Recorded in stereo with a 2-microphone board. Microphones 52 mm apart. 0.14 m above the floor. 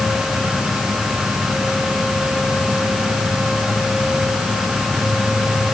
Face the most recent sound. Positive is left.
No sound to turn to.